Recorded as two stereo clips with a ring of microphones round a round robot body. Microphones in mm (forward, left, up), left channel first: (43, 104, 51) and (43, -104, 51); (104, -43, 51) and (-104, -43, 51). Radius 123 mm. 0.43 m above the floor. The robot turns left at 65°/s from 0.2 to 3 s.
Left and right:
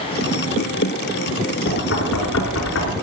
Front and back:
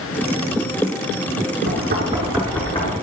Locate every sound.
1.7 s knocking: 140° left, 4 m; by 2.9 s 60° left, 4 m